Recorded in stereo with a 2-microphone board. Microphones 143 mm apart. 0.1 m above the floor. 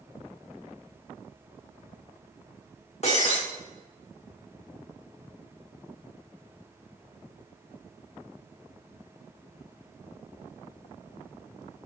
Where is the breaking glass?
50° left (ahead or behind), 5.5 m.